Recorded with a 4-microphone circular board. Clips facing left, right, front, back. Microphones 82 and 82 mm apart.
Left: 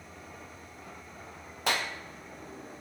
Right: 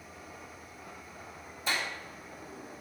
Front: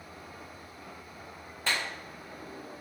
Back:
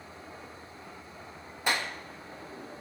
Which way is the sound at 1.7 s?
105° left.